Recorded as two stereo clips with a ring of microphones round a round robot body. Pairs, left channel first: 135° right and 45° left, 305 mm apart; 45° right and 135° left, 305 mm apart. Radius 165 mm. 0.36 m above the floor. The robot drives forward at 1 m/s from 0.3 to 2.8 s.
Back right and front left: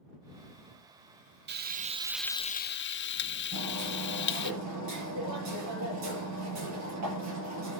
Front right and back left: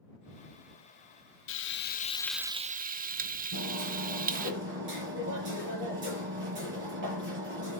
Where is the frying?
5° right, 1.0 m; by 4.5 s 175° right, 0.8 m.